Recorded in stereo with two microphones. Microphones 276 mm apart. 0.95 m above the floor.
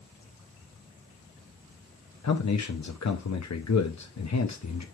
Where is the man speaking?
75° left (ahead or behind), 0.8 m.